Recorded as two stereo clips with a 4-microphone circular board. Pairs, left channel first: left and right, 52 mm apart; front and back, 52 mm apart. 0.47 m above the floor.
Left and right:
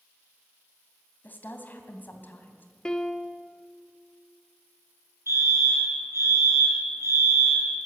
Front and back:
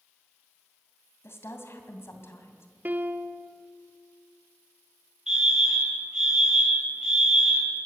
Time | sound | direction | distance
1.2 | a woman speaking | 40° left | 2.5 m
2.9 | a piano | 155° left | 0.9 m
5.3 | a fire alarm | 105° right | 6 m